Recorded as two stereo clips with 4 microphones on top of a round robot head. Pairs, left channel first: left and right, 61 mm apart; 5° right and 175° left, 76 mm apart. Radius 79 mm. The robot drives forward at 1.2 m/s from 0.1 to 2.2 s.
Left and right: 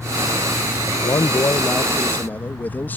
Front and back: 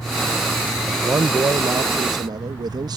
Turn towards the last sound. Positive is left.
turn(degrees=150)